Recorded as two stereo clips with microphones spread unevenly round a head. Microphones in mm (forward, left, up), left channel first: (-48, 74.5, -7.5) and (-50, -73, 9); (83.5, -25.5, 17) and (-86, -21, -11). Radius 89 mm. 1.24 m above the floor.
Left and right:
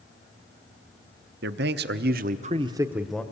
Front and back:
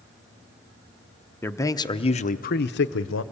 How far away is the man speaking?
About 1.0 m.